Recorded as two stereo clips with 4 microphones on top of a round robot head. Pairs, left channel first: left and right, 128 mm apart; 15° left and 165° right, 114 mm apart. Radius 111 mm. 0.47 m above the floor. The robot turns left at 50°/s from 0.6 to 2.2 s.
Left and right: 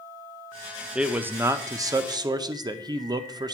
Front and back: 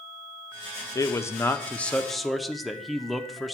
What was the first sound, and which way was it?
A man speaking, 15° right.